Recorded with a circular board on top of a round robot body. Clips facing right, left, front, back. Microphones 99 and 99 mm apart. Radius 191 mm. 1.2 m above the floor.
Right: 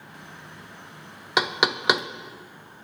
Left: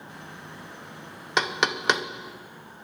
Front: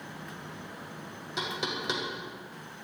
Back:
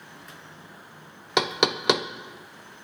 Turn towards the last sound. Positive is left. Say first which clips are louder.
# right 1 dB, back 10 dB
turn(degrees=-170)